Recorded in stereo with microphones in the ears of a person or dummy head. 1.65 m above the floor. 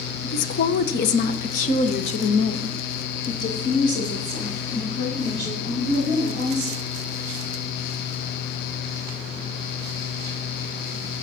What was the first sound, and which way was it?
A woman speaking, 50° left (ahead or behind).